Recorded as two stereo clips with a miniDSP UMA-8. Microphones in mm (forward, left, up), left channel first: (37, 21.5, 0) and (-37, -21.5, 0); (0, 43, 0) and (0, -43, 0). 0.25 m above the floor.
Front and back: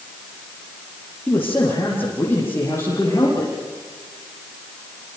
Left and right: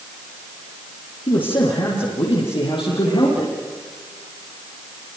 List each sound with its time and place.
1.3 s a man speaking: 95° left, 7.5 m; by 3.5 s 90° left, 9.5 m